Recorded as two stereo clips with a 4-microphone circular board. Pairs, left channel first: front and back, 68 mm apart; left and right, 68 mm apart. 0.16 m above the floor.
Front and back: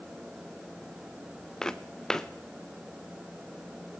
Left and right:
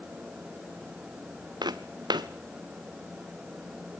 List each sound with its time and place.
1.6 s footsteps: 80° right, 1.3 m